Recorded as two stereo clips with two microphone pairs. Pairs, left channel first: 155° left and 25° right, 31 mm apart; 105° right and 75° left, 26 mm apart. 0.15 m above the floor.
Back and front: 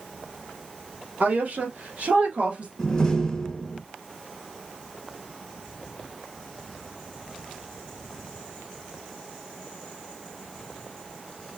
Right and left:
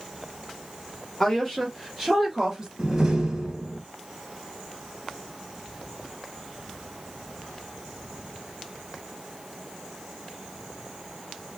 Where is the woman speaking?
30° right, 2.5 m; by 2.7 s 15° left, 2 m.